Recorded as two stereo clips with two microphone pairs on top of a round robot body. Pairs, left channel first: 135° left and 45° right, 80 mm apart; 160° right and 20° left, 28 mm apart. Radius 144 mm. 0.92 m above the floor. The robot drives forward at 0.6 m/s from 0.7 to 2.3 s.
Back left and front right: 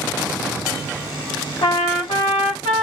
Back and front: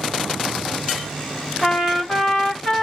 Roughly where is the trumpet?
Behind left.